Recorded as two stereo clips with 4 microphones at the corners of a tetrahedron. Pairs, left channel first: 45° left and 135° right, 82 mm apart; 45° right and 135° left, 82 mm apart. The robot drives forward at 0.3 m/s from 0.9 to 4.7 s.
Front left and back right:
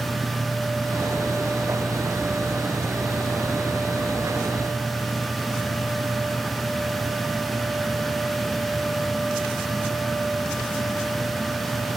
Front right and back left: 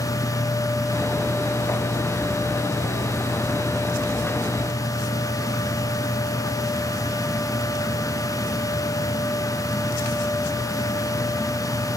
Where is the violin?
No violin in this recording.